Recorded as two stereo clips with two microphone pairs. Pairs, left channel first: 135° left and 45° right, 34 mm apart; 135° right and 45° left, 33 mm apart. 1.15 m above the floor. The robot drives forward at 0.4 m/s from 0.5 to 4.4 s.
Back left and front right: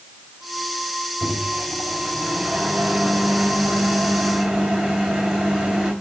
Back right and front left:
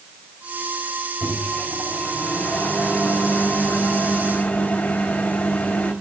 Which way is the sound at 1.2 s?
110° right.